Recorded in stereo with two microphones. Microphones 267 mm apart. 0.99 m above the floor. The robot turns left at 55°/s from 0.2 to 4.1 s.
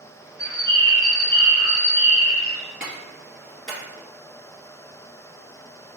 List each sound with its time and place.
0.4 s a bird: 105° right, 1.8 m; by 2.6 s 130° left, 1.8 m
2.8 s a clap: 35° right (ahead or behind), 2 m; by 3.8 s 20° left (ahead or behind), 2 m